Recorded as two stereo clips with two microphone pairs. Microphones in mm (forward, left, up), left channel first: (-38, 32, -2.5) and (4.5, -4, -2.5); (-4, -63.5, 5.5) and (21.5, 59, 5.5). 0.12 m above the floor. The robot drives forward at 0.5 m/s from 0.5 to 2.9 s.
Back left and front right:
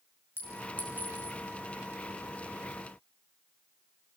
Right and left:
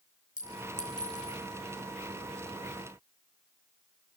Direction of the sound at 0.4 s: 100° right.